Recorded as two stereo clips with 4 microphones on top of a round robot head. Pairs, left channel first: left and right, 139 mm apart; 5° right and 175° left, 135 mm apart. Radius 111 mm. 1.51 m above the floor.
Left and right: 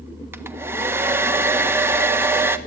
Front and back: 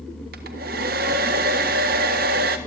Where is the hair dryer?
165° right, 1.5 m.